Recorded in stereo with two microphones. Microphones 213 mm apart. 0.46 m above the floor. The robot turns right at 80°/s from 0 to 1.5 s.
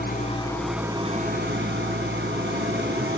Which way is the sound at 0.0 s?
125° left.